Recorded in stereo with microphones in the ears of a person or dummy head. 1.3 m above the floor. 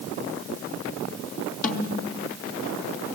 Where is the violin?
No violin in this recording.